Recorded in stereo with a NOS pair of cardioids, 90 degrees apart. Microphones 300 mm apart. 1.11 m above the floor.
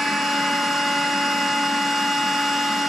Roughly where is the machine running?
Ahead.